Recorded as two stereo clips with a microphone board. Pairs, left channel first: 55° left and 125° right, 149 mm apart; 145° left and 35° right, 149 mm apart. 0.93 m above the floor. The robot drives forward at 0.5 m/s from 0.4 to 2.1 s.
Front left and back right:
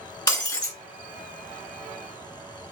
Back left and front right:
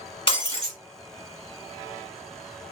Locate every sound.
0.3 s breaking glass: 105° left, 0.9 m; by 0.8 s 120° left, 1.0 m